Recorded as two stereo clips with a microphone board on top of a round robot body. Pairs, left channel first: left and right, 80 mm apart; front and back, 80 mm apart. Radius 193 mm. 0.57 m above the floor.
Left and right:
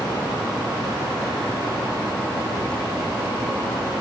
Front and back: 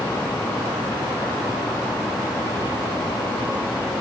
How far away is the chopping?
No chopping in this recording.